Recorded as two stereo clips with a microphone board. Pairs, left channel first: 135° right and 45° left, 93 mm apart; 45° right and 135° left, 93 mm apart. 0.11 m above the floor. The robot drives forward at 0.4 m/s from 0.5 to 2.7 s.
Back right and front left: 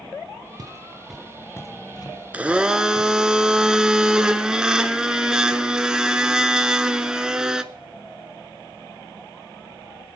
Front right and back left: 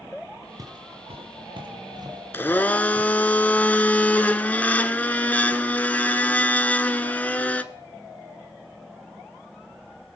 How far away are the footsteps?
About 1.0 m.